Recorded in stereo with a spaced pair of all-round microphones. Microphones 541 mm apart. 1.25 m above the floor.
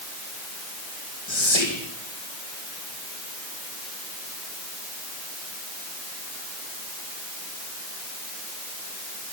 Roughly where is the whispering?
Left.